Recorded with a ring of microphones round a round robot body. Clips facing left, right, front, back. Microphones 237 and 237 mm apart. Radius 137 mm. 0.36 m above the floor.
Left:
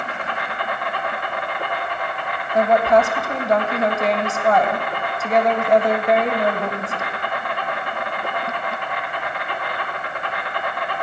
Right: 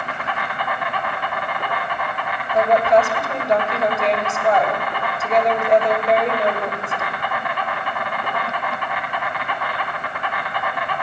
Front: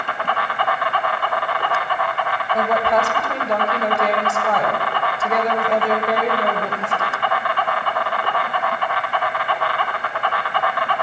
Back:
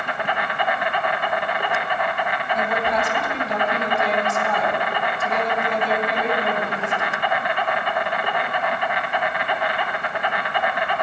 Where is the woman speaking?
20° right, 2.5 m.